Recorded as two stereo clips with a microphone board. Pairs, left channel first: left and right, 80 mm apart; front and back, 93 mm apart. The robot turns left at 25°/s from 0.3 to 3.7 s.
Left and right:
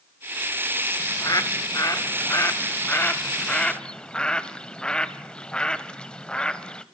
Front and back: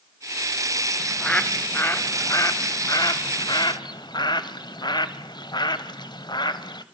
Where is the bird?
80° left, 0.9 m; by 6.8 s 15° left, 0.9 m.